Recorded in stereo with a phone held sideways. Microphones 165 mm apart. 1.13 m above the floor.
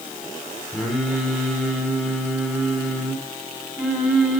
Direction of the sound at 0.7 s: Centre (ahead or behind).